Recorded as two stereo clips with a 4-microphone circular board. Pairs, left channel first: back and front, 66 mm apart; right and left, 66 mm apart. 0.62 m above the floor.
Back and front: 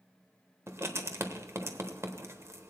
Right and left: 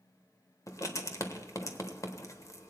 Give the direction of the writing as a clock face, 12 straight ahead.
2 o'clock.